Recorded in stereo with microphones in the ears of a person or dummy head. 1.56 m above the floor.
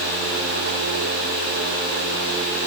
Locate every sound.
Only background noise.